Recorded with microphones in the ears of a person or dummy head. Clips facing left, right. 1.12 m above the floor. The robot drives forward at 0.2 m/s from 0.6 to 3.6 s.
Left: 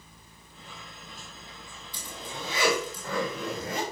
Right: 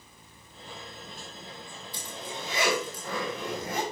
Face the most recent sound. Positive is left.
turn(degrees=75)  # may be behind; listen again after turning